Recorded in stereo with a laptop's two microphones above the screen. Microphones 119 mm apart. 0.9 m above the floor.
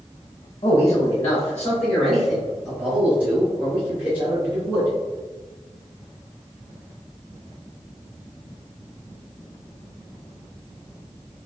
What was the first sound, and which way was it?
A man speaking, 40° left (ahead or behind).